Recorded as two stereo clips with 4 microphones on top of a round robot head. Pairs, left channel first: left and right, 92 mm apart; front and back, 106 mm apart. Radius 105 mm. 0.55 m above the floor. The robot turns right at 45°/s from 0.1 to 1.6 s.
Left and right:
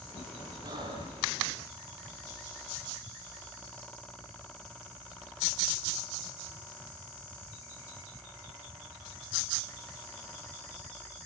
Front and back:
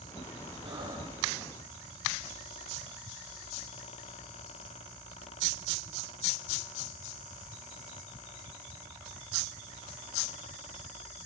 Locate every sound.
0.6 s breathing: 135° right, 8 m; by 1.2 s 110° right, 8 m